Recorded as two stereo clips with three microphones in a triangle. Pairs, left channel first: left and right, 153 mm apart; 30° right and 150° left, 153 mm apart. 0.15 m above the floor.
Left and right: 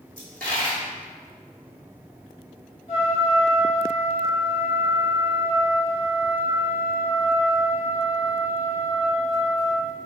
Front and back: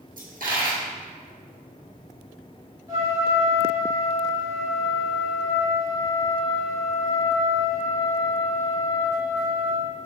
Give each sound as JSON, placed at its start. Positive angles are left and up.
{"t": 0.2, "sound": "a dropped coin", "azimuth_deg": 165, "distance_m": 1.8}
{"t": 2.9, "sound": "a trumpet", "azimuth_deg": 100, "distance_m": 1.8}